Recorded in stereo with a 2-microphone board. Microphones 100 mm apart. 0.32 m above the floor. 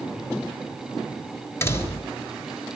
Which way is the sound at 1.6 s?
25° left (ahead or behind).